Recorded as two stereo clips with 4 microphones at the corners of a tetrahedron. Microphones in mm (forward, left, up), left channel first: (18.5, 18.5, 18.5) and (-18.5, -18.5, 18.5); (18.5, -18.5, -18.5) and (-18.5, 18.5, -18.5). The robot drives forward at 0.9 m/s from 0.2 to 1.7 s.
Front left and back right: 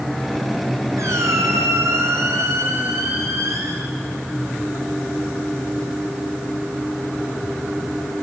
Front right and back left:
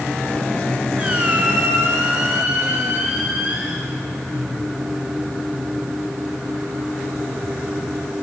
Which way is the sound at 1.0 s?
160° right.